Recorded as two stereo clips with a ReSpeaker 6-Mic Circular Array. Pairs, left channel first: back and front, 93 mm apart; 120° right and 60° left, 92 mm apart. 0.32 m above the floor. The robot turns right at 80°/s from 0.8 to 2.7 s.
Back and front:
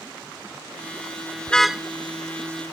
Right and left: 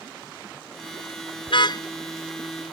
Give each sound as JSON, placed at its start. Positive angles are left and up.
{"t": 1.5, "sound": "a car horn", "azimuth_deg": -105}